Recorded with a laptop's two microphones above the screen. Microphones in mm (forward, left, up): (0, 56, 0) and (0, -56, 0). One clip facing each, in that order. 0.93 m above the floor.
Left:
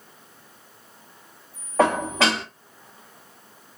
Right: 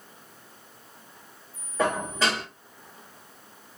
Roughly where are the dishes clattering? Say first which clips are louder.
Left 6 dB; left.